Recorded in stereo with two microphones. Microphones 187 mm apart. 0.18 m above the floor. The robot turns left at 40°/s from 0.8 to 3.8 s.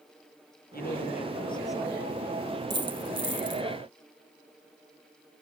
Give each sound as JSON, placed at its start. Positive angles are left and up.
{"t": 0.7, "sound": "a woman speaking", "azimuth_deg": 55, "distance_m": 4.0}
{"t": 2.7, "sound": "a dropped coin", "azimuth_deg": -70, "distance_m": 1.6}